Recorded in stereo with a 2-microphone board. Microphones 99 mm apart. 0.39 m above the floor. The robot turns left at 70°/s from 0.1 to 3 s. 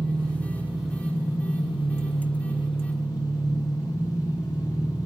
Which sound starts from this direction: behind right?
An engine running, at 0.0 s.